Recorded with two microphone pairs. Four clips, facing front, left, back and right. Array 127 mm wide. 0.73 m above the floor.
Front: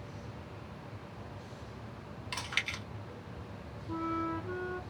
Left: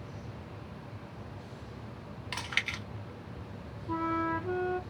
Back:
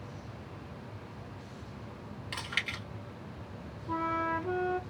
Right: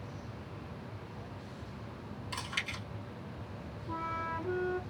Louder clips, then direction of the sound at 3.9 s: Left 6 dB, back 3 dB; 150° left.